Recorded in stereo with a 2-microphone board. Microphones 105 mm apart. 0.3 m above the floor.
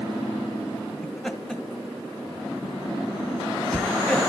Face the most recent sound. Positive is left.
turn(degrees=5)  # may be behind; listen again after turning